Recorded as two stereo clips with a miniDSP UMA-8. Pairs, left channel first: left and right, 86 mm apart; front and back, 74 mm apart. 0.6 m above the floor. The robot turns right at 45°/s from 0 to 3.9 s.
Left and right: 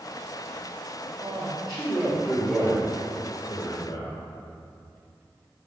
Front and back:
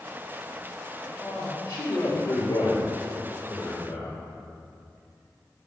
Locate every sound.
1.2 s a man speaking: 65° right, 1.6 m; by 4.2 s 55° left, 1.6 m